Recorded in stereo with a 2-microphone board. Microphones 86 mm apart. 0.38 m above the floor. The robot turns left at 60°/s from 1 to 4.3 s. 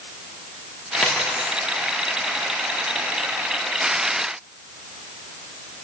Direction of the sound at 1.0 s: 20° left (ahead or behind).